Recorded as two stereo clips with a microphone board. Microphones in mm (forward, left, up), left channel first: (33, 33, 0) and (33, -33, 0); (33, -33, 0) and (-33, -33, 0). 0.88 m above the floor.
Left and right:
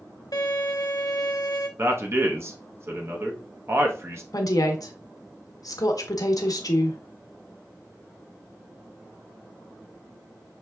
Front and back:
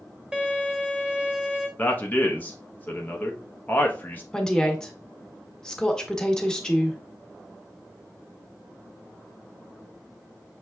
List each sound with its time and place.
0.3 s a violin: 105° left, 0.9 m
1.8 s a man speaking: 55° right, 0.8 m
4.3 s a woman speaking: 80° left, 1.0 m